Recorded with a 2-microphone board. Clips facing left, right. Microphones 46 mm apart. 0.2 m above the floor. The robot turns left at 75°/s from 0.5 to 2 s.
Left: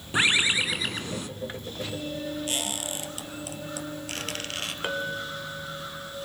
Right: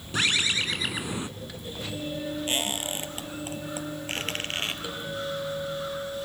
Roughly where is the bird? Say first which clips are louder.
Left 3 dB; ahead left.